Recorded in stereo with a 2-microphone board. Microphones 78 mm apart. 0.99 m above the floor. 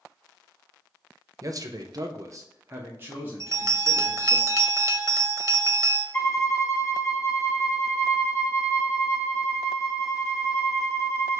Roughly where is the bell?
Right.